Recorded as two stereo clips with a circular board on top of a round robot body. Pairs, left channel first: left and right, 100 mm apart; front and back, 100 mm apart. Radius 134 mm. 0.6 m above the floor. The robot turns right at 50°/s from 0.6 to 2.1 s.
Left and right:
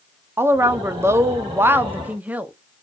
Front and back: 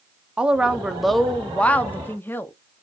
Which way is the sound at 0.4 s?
115° right.